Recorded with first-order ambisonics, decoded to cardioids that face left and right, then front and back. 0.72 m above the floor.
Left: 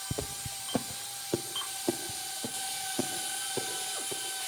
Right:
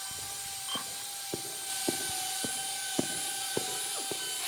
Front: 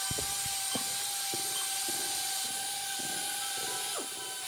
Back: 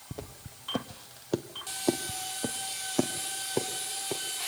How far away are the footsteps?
About 1.2 m.